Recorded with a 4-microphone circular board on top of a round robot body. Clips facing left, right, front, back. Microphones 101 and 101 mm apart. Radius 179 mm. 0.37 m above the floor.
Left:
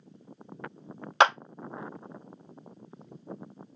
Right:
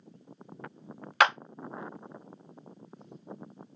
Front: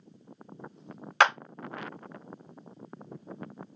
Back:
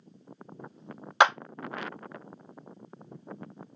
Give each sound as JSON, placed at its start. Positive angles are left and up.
{"t": 1.2, "sound": "a clap", "azimuth_deg": 125, "distance_m": 1.0}